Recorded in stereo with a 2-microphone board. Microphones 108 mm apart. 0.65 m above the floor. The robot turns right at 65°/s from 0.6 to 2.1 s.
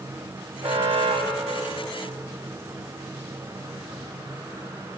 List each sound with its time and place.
0.6 s an alarm: 105° right, 6 m; by 2.1 s 10° right, 6 m